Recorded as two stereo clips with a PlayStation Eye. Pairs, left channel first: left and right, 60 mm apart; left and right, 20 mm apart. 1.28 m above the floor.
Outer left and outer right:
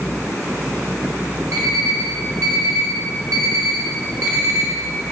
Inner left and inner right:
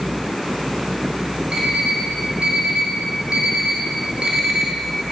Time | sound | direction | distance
1.5 | an alarm clock | 65° right (ahead or behind) | 1.0 m